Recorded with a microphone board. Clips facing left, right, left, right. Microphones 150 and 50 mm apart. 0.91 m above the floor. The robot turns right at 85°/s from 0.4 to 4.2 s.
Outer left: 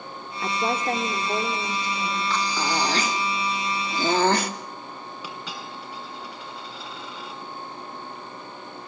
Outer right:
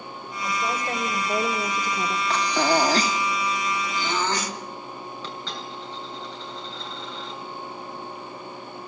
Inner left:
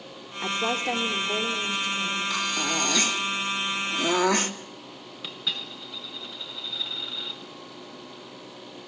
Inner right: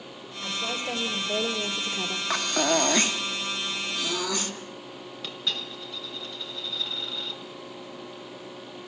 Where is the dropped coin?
10° left (ahead or behind), 4.5 m.